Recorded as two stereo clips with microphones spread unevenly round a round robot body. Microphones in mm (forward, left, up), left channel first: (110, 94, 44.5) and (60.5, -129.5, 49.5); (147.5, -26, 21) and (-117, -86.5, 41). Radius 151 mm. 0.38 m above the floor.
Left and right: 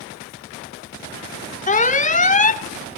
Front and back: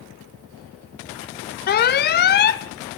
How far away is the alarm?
About 0.9 m.